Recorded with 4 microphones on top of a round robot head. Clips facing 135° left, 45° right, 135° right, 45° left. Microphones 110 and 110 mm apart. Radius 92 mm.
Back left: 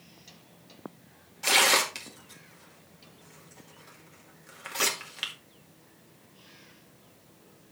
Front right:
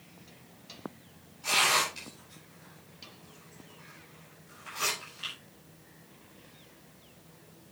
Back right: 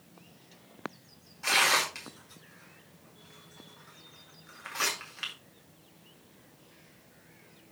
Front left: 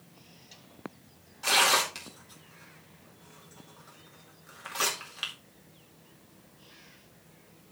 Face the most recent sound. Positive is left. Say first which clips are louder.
# back left 3 dB, front left 2 dB
turn(degrees=120)